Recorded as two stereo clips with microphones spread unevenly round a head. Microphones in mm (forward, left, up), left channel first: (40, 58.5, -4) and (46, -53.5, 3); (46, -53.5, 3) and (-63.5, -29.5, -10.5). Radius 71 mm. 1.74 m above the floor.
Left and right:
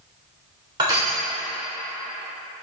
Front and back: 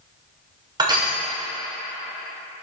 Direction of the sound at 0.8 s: 140° right.